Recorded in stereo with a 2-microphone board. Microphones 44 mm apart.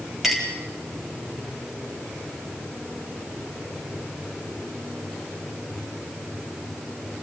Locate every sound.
0.2 s a clink: 5° right (ahead or behind), 4 m